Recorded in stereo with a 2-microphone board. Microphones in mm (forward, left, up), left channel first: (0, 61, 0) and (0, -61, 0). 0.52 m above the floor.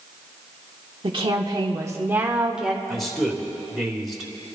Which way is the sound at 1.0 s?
45° right (ahead or behind).